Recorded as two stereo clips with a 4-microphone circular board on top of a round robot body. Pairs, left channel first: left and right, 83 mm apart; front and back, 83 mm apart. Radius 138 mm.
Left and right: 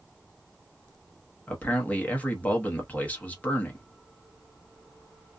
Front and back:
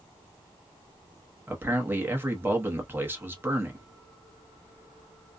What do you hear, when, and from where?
1.5 s a man speaking: 145° left, 1.2 m